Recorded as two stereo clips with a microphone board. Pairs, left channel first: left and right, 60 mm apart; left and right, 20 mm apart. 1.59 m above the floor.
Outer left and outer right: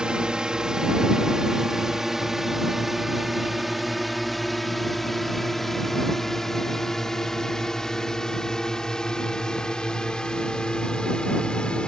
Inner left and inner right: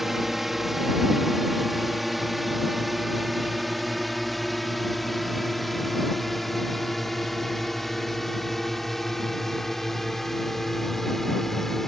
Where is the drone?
10° right (ahead or behind); by 11.9 s 20° left (ahead or behind).